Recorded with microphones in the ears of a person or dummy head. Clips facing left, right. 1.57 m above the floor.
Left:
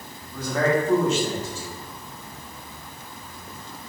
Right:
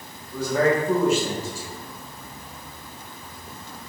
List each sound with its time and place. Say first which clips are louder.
0.3 s a man speaking: right 2 dB; 10° right (ahead or behind), 2.5 m